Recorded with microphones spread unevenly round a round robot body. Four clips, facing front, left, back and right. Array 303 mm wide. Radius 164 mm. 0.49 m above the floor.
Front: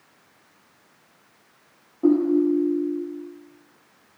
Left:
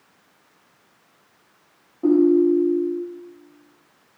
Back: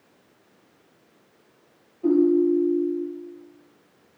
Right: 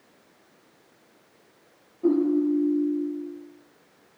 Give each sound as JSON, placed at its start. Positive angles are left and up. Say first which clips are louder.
{"t": 2.0, "sound": "a ringtone", "louder": "left 6 dB, even", "azimuth_deg": 30, "distance_m": 4.5}